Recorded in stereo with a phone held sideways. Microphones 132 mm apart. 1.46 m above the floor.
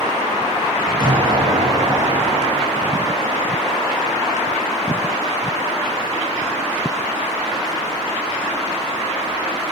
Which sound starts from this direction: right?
An explosion, at 1.0 s.